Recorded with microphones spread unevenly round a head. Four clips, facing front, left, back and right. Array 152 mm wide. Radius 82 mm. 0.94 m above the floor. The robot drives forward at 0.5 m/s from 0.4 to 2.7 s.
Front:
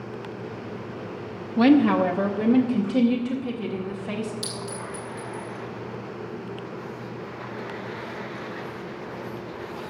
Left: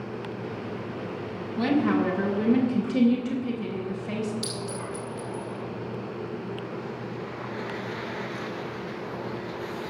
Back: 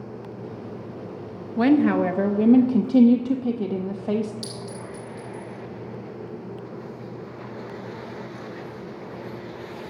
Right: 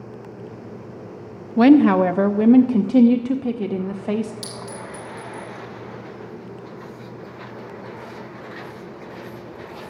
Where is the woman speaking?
75° right, 0.7 m; by 4.3 s 120° right, 0.8 m.